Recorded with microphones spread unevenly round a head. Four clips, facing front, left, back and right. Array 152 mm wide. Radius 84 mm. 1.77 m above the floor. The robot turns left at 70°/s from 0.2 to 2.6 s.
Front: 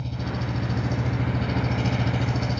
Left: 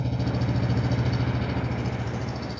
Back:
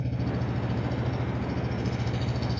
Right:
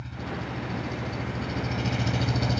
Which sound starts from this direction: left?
An engine running, at 0.0 s.